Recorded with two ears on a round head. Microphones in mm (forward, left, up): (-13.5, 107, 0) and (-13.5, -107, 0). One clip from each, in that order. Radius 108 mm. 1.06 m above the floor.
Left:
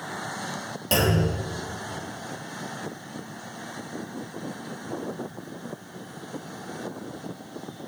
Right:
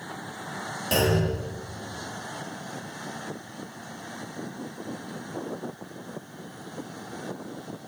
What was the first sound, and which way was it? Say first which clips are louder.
A clunk: left 1 dB; 10° left (ahead or behind).